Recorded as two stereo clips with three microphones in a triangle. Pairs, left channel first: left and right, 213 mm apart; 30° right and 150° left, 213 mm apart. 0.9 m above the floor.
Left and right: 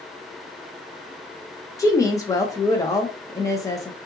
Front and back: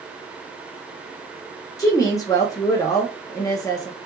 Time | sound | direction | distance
1.8 | a woman speaking | 25° left | 0.5 m